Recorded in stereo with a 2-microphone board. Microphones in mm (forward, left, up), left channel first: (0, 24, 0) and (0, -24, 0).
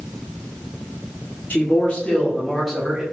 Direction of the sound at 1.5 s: 40° left (ahead or behind).